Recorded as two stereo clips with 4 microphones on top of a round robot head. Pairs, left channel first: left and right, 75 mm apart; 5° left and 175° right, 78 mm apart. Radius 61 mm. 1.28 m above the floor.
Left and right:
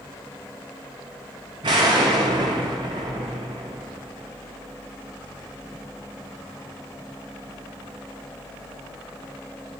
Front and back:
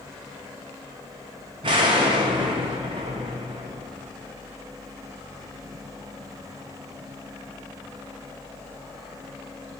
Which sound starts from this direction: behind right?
An explosion, at 1.6 s.